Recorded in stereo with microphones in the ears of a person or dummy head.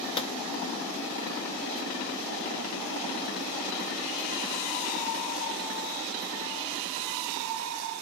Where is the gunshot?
25° left (ahead or behind), 0.8 m.